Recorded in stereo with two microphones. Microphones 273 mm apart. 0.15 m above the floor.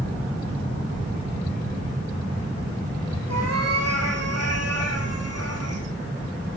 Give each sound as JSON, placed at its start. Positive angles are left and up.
{"t": 3.3, "sound": "a cat meowing", "side_deg": -70, "distance_m": 2.5}